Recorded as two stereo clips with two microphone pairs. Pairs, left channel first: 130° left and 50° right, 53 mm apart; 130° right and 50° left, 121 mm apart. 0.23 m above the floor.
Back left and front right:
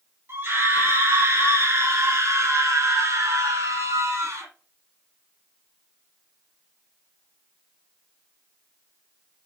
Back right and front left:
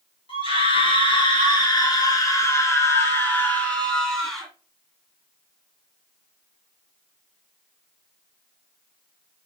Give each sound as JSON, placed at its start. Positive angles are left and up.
{"t": 0.3, "sound": "a scream", "azimuth_deg": -90, "distance_m": 3.0}